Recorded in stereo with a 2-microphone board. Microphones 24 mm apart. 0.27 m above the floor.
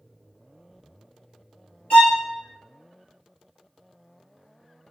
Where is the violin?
80° left, 1.1 m.